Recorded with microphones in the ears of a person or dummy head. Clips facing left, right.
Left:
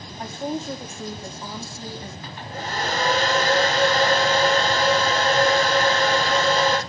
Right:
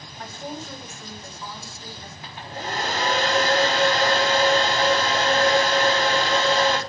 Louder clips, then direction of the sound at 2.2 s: Right 3 dB; 5° right (ahead or behind).